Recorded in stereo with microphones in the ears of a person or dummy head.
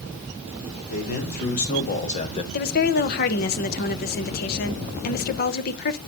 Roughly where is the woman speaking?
Left.